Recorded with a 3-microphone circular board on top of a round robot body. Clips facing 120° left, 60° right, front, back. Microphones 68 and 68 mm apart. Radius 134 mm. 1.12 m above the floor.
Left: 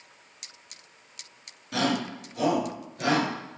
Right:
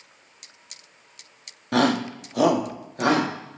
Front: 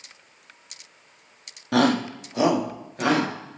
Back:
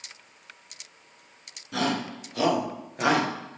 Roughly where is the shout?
Ahead right.